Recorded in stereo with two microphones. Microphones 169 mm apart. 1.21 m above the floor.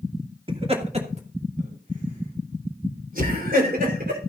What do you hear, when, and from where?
0.5 s laughter: 35° right (ahead or behind), 2.5 m; by 4.2 s 65° right (ahead or behind), 4 m